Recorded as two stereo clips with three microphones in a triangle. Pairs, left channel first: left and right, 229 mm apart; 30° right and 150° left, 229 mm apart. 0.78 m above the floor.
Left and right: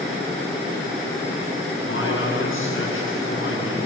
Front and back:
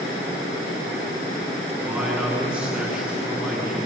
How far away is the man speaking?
About 8 m.